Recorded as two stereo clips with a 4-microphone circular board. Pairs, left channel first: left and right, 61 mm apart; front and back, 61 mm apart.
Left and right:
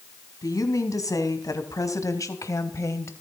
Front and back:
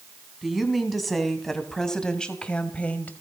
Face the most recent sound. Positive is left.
turn(degrees=60)